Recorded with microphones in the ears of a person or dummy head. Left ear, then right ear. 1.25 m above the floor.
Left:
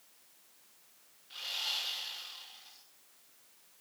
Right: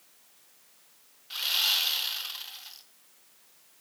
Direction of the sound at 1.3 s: 35° right (ahead or behind).